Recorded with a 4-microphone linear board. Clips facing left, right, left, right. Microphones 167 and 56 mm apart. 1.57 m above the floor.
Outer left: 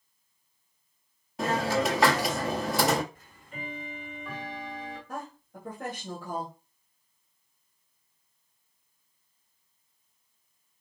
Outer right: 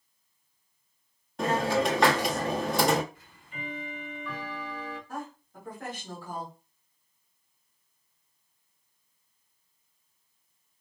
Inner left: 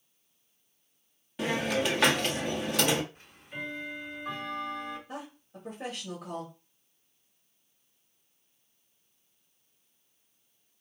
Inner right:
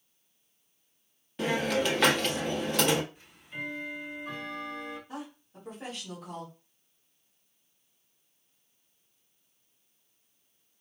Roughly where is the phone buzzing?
No phone buzzing in this recording.